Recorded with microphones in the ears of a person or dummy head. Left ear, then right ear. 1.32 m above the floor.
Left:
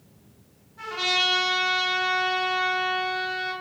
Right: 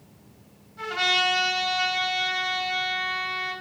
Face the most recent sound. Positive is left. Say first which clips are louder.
# right 1 dB
turn(degrees=-45)  # may be behind; listen again after turning